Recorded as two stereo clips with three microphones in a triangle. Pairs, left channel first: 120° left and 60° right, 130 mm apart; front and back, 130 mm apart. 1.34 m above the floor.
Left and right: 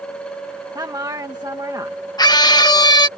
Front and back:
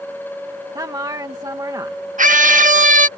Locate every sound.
0.8 s a woman speaking: 120° right
2.2 s a scream: straight behind